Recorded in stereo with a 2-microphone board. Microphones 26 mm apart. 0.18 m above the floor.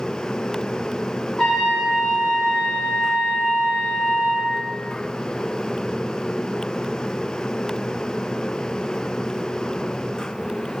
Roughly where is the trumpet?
Left.